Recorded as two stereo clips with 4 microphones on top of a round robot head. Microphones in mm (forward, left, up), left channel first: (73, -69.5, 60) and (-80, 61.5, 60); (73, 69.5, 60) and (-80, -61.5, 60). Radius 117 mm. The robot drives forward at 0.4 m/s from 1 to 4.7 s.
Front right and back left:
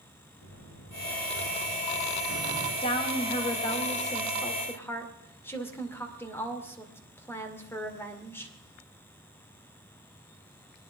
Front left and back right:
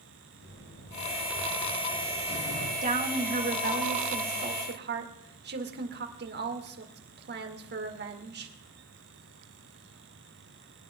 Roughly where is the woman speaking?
Right.